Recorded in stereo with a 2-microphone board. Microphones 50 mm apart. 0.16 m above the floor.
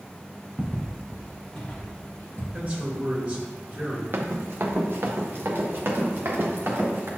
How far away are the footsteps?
About 2 m.